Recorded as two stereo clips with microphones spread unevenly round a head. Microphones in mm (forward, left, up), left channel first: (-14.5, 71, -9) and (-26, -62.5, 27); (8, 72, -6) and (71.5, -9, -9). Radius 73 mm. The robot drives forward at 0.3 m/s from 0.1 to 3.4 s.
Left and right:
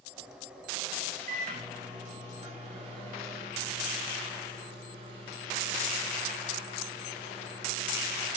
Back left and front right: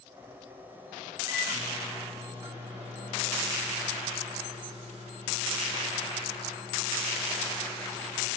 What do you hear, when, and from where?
1.3 s a microwave: 110° right, 1.4 m; by 8.3 s 130° right, 1.7 m